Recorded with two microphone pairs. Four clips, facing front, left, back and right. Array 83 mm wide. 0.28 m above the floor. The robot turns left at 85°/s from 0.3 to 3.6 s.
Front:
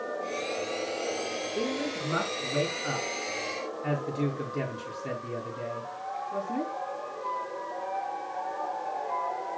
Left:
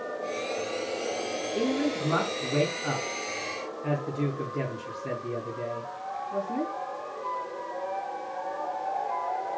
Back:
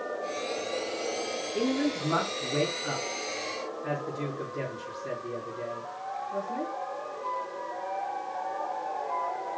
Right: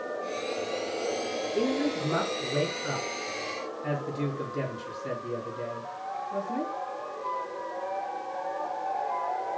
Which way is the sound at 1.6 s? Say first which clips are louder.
Even, back 5 dB; straight behind.